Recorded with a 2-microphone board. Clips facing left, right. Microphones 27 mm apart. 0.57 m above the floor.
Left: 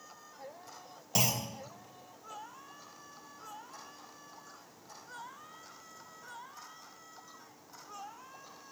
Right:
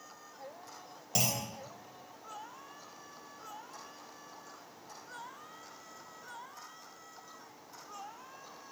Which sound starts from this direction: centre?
A clunk, at 1.1 s.